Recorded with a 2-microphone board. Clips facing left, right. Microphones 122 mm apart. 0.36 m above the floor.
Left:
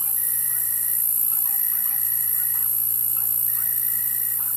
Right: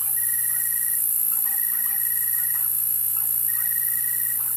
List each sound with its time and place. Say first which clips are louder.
0.0 s an insect: right 1 dB; 20° left (ahead or behind), 1.0 m